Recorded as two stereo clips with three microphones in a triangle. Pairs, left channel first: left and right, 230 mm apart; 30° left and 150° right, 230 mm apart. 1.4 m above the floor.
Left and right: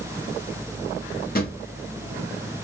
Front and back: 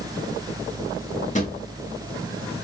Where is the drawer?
70° left, 1.0 m.